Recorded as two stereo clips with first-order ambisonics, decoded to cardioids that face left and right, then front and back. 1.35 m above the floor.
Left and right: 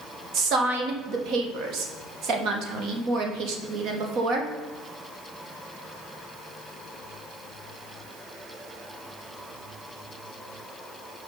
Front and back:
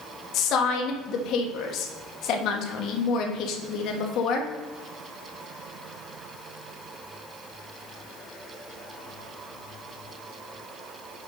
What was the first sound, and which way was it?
A woman speaking, 45° right.